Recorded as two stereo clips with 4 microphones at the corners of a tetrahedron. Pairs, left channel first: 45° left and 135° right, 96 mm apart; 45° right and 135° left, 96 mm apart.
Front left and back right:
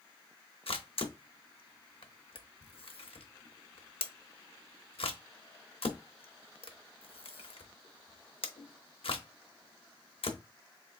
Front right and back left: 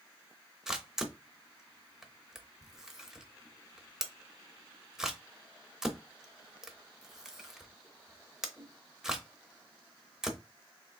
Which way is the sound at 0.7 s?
50° left.